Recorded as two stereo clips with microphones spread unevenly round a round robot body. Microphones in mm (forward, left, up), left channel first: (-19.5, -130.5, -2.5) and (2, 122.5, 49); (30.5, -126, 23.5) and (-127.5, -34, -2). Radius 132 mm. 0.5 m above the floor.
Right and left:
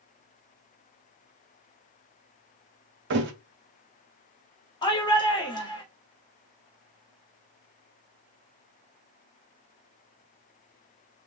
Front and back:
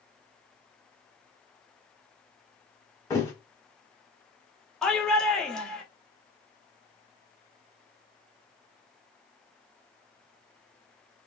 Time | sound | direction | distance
3.1 | a thud | 45° left | 0.6 m
4.8 | a shout | 130° right | 1.0 m